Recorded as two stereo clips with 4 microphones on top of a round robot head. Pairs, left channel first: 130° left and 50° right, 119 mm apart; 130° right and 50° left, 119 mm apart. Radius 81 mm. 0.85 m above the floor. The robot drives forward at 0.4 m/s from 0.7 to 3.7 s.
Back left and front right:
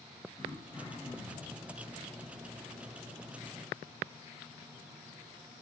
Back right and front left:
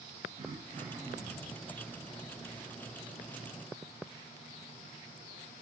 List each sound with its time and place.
0.4 s throat clearing: 75° left, 3 m; by 1.7 s 80° left, 3 m